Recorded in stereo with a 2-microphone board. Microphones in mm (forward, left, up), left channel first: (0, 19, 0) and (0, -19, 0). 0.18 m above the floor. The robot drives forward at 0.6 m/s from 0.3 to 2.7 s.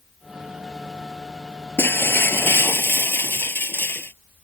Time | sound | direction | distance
1.8 | breaking glass | 75° left (ahead or behind) | ?